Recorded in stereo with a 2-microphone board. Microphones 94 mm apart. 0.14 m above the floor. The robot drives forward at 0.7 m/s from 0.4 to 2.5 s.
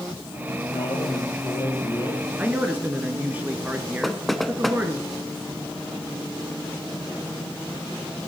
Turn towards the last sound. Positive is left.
turn(degrees=0)  # may be behind; listen again after turning